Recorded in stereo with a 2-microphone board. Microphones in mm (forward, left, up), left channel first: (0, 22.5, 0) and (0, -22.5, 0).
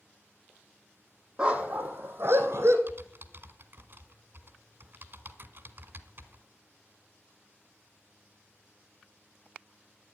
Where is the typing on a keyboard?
50° right (ahead or behind), 1.4 m.